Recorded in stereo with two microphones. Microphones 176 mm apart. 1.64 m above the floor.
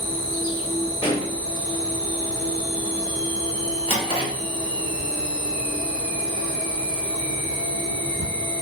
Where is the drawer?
30° left (ahead or behind), 0.9 m.